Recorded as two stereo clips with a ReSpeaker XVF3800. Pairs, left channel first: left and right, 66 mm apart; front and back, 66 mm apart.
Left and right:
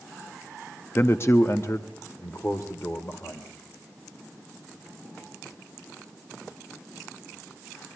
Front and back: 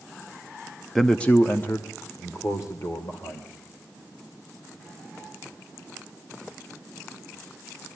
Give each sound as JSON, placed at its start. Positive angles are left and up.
{"t": 0.9, "sound": "a man speaking", "azimuth_deg": 85, "distance_m": 0.7}